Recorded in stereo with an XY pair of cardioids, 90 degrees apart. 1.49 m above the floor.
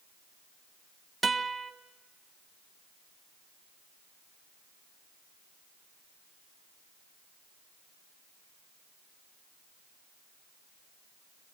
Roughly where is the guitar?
Ahead right.